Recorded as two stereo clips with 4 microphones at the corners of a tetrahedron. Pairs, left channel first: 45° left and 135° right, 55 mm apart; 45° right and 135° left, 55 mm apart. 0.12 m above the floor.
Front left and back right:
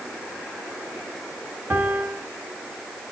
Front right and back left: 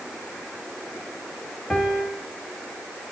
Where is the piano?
105° right, 1.8 m.